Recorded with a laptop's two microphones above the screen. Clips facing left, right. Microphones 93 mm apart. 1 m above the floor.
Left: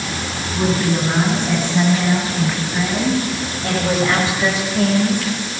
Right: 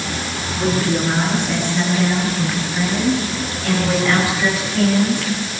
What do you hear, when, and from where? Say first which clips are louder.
0.5 s a woman speaking: even; 40° left (ahead or behind), 7.5 m; by 5.5 s 15° left (ahead or behind), 3.5 m